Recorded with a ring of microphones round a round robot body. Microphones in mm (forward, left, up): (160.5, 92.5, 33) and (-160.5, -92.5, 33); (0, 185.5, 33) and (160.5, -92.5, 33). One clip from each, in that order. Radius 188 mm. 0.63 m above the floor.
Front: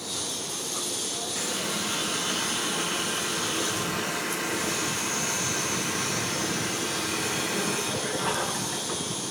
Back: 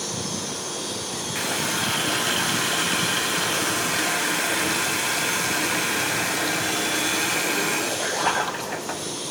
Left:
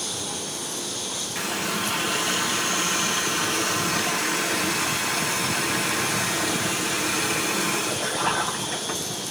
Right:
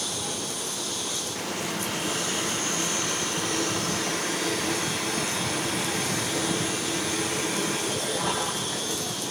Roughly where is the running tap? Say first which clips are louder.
Back 7 dB, left 4 dB; behind.